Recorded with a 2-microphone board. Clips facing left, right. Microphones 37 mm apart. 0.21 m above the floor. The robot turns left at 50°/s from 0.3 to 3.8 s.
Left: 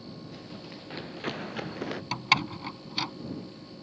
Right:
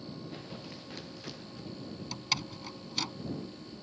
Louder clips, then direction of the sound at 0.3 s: Left 1 dB; 15° right (ahead or behind).